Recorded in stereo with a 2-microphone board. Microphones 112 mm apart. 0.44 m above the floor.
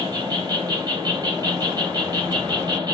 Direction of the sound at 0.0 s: 35° right (ahead or behind).